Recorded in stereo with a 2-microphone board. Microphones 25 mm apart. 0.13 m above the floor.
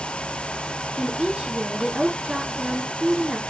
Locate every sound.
1.0 s a woman speaking: 25° right (ahead or behind), 1.5 m